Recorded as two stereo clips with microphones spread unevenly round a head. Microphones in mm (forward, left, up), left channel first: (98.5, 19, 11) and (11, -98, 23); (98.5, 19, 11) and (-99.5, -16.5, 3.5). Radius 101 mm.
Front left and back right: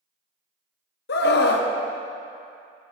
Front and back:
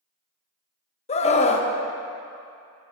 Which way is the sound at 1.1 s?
70° left.